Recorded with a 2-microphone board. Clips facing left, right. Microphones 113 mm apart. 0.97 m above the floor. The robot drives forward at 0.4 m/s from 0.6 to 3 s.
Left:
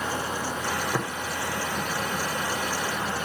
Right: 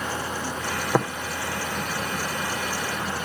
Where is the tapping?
70° right (ahead or behind), 1.0 m.